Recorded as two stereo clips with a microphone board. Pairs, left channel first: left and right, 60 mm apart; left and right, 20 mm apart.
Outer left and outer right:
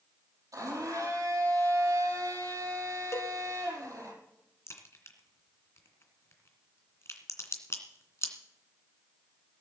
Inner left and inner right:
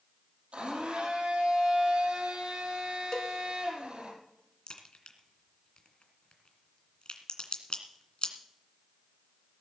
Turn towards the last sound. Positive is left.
turn(degrees=50)  # may be behind; listen again after turning